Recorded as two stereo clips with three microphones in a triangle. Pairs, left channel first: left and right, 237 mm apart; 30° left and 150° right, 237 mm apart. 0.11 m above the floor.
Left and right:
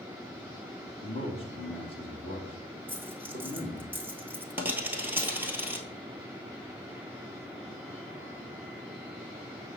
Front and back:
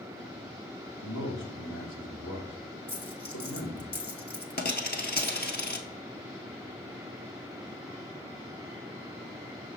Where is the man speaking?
30° left, 2.5 m.